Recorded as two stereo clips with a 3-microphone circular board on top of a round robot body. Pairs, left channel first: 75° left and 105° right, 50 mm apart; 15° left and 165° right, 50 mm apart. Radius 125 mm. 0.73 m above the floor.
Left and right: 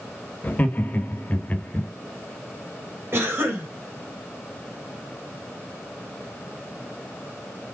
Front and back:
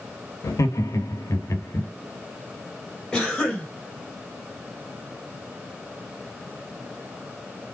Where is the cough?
60° right, 3.5 m.